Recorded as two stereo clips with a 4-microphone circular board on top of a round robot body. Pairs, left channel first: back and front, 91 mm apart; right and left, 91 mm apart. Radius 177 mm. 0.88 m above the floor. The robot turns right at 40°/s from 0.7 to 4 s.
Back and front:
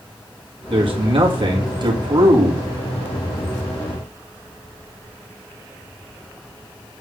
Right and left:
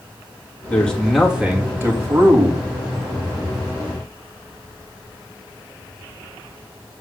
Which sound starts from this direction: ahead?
A man speaking, at 0.7 s.